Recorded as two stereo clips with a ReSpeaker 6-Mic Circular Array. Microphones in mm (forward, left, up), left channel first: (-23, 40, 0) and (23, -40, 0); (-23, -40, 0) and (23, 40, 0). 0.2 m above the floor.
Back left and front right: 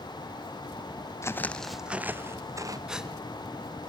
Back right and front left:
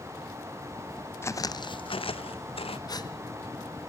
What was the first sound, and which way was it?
Footsteps, straight behind.